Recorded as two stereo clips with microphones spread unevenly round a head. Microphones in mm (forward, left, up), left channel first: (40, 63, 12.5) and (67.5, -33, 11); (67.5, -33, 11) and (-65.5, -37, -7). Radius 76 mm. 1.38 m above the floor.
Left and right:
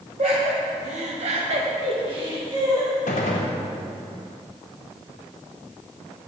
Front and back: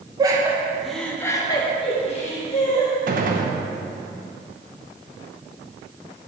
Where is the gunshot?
140° left, 0.9 m.